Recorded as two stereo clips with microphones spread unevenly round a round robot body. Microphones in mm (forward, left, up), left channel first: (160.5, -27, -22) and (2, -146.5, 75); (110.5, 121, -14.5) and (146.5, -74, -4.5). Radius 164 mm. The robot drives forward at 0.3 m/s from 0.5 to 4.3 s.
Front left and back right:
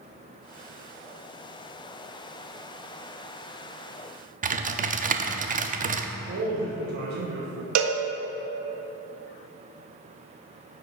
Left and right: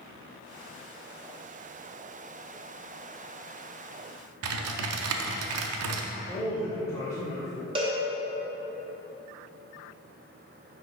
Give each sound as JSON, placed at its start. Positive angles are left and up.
{"t": 4.4, "sound": "typing on a keyboard", "azimuth_deg": -85, "distance_m": 0.5}
{"t": 6.3, "sound": "a man speaking", "azimuth_deg": 160, "distance_m": 0.7}
{"t": 7.8, "sound": "a cowbell", "azimuth_deg": -150, "distance_m": 0.5}